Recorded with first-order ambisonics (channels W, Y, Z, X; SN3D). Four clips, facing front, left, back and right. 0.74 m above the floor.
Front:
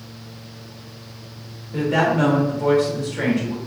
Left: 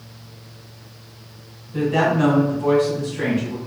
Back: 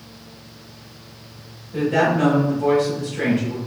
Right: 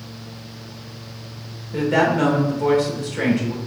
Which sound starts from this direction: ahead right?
A woman speaking, at 1.7 s.